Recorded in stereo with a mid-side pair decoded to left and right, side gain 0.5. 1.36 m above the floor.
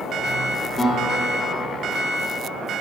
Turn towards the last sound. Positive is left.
turn(degrees=10)